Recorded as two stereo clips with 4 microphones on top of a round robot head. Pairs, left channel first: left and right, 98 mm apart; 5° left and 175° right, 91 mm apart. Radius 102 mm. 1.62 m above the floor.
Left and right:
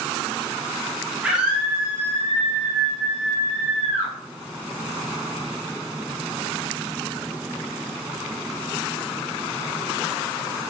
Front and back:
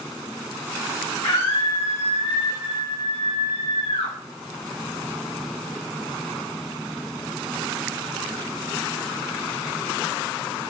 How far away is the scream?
About 1.6 m.